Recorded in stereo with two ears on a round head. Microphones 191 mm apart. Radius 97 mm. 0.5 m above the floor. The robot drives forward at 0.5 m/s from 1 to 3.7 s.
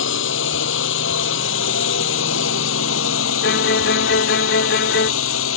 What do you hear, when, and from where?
0.0 s a drone: 60° left (ahead or behind); by 5.6 s 65° left (ahead or behind)
3.4 s a violin: 45° left (ahead or behind)